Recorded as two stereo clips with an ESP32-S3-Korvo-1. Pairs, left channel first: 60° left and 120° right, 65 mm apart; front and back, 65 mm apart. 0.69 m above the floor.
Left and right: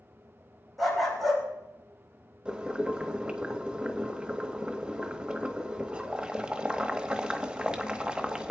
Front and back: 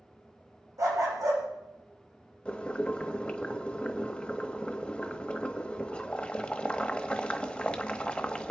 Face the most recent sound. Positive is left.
turn(degrees=-60)